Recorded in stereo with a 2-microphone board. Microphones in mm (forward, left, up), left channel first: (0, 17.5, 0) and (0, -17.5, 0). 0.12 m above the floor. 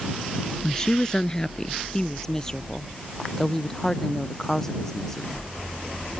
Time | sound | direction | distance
0.6 | a woman speaking | 20° left (ahead or behind) | ?